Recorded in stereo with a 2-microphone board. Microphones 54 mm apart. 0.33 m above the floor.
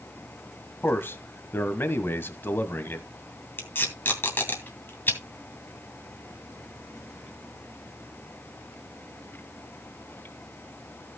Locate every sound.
0.8 s a man speaking: 35° left (ahead or behind), 1.6 m
3.6 s tape being pulled: 35° left (ahead or behind), 2.5 m